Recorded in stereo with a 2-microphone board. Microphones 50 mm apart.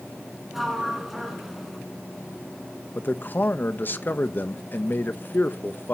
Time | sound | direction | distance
0.5 | a sliding door | centre (ahead or behind) | 2 m
3.0 | a man speaking | 45° left (ahead or behind) | 0.8 m